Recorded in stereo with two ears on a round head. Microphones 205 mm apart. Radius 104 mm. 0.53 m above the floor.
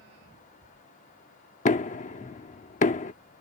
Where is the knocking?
35° left (ahead or behind).